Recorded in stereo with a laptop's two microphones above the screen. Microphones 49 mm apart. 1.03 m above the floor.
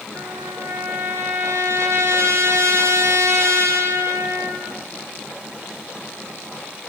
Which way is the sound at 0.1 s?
60° right (ahead or behind).